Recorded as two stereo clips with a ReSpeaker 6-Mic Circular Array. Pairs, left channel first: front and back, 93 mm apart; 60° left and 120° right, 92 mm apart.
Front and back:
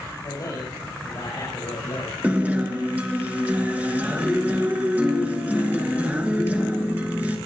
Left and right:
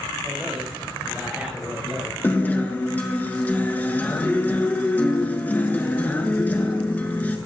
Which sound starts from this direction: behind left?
A guitar, at 2.2 s.